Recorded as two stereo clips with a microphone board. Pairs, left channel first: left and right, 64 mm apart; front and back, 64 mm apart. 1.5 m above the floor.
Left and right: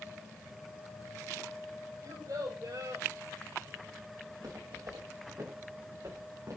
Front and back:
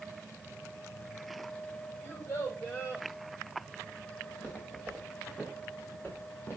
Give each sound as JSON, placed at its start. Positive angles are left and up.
{"t": 2.0, "sound": "a child speaking", "azimuth_deg": -60, "distance_m": 6.5}
{"t": 4.3, "sound": "footsteps", "azimuth_deg": -65, "distance_m": 6.0}